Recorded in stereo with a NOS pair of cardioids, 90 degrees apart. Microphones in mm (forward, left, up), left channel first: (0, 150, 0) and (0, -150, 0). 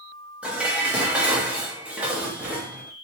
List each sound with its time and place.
0.4 s dishes clattering: 5° right, 0.8 m